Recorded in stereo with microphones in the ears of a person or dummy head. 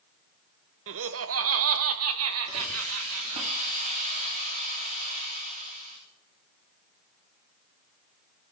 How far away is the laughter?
About 0.7 m.